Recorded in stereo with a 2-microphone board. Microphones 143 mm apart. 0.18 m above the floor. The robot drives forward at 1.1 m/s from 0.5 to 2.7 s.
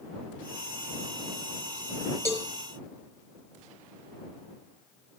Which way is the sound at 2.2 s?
15° left (ahead or behind).